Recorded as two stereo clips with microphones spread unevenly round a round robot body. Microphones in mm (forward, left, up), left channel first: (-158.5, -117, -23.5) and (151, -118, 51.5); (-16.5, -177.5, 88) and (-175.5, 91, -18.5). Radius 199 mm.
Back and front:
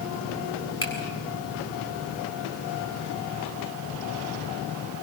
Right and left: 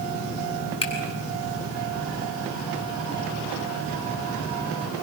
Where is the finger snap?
135° right, 7.5 m.